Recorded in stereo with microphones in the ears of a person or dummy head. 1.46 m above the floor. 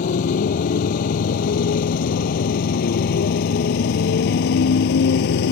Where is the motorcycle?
45° left (ahead or behind); by 5.5 s 60° left (ahead or behind).